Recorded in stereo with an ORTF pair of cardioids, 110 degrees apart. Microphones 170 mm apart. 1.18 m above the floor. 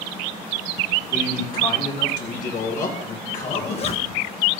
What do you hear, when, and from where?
1.1 s a man speaking: 50° left, 5.5 m; by 3.9 s 65° left, 4 m
3.5 s a zipper: 40° left, 1.2 m